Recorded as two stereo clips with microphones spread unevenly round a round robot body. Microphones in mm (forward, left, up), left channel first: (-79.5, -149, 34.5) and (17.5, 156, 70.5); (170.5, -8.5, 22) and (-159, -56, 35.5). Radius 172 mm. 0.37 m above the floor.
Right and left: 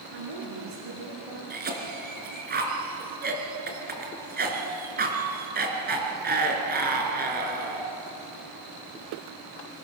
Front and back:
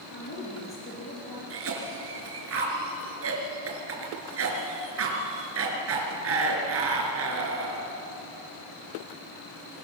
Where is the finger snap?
I don't hear a finger snap.